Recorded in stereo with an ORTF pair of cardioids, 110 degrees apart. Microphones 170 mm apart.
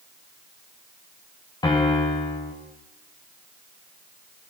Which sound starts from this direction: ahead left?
A piano, at 1.6 s.